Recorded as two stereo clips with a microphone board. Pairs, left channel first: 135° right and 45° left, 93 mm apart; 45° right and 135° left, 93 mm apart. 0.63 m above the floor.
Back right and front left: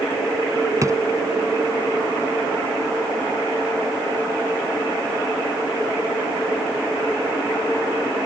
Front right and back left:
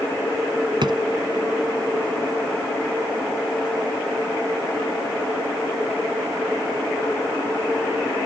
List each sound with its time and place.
0.8 s a drawer: 100° left